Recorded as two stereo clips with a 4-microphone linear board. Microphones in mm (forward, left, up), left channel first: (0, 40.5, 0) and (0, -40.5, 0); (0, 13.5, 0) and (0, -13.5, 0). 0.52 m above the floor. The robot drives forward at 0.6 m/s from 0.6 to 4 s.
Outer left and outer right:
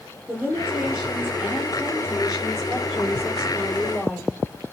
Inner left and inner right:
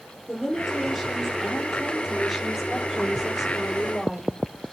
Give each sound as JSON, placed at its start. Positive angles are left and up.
{"t": 0.3, "sound": "a woman speaking", "side_deg": -5, "distance_m": 9.0}